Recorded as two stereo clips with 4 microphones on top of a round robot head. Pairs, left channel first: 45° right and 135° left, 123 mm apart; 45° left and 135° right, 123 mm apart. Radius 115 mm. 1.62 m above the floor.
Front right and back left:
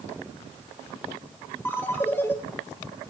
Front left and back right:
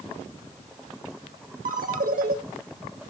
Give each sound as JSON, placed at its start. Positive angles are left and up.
{"t": 1.6, "sound": "a ringtone", "azimuth_deg": -120, "distance_m": 2.5}